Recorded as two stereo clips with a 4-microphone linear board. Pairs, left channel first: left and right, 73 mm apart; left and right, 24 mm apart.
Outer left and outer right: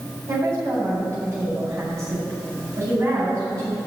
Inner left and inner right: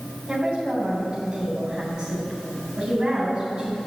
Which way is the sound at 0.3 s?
45° right (ahead or behind).